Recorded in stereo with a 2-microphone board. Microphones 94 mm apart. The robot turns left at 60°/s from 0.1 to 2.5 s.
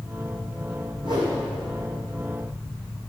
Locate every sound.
1.0 s a whoosh: 60° right (ahead or behind), 6 m; by 1.3 s 40° right (ahead or behind), 6 m